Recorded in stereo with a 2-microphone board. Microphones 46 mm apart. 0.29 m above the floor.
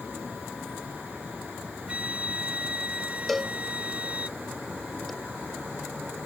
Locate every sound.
0.0 s an insect: 35° right (ahead or behind)
1.9 s a flute: 25° right (ahead or behind)
3.3 s a cowbell: centre (ahead or behind)